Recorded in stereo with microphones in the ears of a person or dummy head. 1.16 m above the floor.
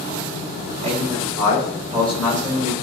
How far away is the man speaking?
About 4.5 m.